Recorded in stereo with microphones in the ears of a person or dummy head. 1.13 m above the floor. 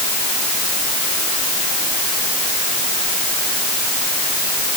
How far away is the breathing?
No breathing in this recording.